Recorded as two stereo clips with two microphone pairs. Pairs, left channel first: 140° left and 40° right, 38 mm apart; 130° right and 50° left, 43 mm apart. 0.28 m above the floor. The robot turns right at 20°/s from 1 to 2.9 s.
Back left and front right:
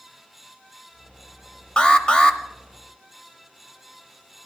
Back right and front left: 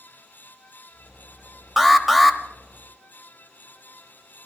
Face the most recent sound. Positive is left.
turn(degrees=145)